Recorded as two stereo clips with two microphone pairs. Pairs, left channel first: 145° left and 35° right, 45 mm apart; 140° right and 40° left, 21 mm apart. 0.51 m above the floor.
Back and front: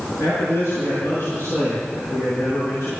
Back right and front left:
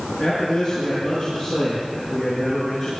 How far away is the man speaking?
About 6.5 m.